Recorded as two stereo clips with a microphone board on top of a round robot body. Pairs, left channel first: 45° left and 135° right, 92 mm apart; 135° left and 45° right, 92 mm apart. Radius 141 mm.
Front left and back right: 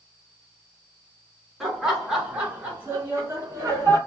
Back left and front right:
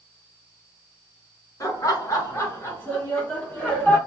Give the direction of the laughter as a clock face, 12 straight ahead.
7 o'clock.